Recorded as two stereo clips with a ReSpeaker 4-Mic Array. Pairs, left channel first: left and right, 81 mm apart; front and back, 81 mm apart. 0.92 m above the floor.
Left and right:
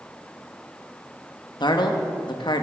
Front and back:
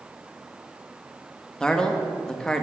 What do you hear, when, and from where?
1.6 s a man speaking: 80° left, 0.9 m